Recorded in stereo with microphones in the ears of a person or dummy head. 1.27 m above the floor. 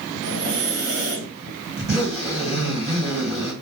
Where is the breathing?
70° right (ahead or behind), 1.3 m.